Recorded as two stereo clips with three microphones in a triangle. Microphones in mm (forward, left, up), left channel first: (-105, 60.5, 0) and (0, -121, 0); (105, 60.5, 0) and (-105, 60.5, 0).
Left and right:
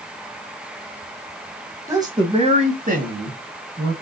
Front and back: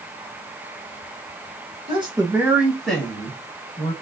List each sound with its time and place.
1.9 s a woman speaking: 130° right, 1.5 m; by 3.9 s 60° right, 2 m